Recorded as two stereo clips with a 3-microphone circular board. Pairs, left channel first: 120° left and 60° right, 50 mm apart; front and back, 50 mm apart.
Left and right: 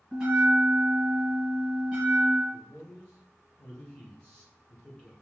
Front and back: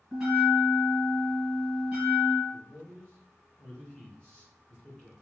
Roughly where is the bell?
Right.